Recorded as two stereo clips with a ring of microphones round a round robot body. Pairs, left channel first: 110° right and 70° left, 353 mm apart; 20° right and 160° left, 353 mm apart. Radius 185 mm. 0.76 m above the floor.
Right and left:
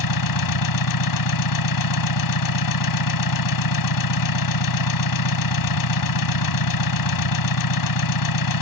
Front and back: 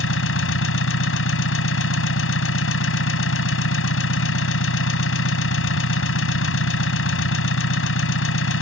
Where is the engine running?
80° right.